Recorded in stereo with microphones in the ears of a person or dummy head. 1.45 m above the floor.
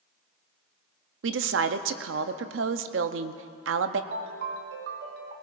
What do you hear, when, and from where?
1.2 s a woman speaking: 60° right (ahead or behind), 0.6 m
4.1 s a ringtone: 55° right (ahead or behind), 0.9 m